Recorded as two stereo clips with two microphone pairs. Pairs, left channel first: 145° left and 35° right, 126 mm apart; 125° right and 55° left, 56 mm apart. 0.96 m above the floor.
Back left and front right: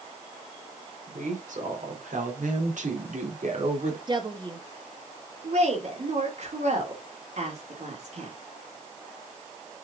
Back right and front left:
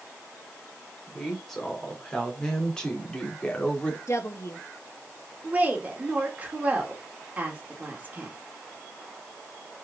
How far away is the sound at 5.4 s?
About 2.5 m.